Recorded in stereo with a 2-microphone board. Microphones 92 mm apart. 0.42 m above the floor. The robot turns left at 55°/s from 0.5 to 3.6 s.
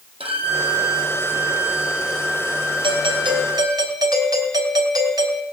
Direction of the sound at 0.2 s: 90° right.